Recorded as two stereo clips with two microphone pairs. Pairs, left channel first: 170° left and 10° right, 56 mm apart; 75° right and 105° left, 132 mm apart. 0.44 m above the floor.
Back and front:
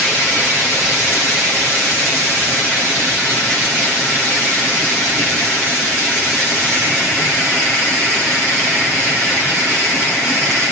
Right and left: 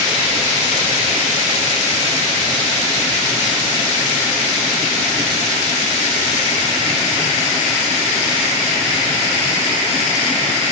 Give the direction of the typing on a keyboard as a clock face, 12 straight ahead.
No typing on a keyboard in this recording.